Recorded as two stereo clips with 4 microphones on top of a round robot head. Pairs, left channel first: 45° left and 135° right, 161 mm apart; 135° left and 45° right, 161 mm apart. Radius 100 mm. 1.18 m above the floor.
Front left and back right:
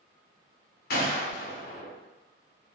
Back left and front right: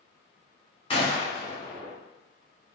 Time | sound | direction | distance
0.9 | a gunshot | 75° left | 2.5 m